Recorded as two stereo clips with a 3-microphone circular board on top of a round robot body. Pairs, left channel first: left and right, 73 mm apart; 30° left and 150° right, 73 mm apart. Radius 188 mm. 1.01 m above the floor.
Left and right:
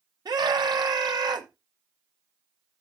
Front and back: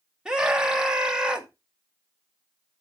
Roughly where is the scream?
Right.